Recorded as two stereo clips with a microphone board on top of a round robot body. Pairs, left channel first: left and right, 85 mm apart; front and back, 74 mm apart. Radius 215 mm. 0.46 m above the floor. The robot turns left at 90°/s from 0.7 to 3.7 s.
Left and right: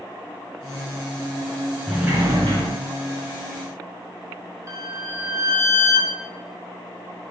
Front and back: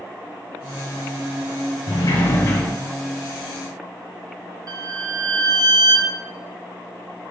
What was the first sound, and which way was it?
A sliding door, 10° right.